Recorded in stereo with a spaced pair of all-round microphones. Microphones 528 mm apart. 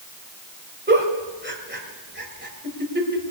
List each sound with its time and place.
0.9 s a giggle: 20° right (ahead or behind), 2.5 m